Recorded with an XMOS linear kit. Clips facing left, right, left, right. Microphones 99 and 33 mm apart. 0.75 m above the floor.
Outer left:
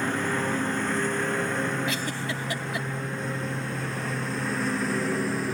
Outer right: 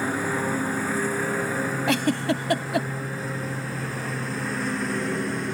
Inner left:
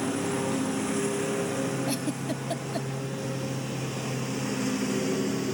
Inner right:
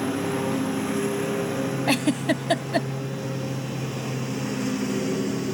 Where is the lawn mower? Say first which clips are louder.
Outer right 1 dB, inner right 3 dB; 5° right (ahead or behind); by 5.5 s centre (ahead or behind).